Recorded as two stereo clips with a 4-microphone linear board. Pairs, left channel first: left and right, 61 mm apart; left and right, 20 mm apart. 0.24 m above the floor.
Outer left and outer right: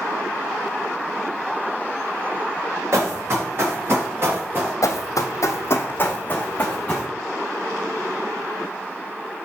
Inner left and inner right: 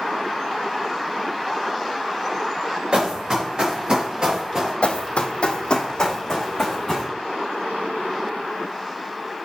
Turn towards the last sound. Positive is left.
turn(degrees=15)  # may be behind; listen again after turning